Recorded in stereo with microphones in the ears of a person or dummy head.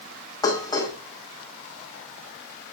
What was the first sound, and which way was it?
Dishes clattering, 15° left (ahead or behind).